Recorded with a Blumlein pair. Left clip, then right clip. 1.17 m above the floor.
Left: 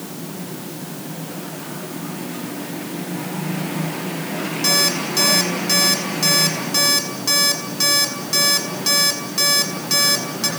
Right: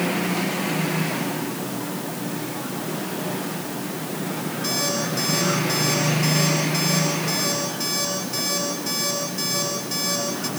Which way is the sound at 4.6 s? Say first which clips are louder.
Left 7 dB; 55° left.